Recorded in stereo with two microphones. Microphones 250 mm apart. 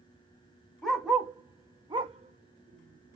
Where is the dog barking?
Centre (ahead or behind), 1.2 m; by 3.2 s 55° right (ahead or behind), 0.8 m.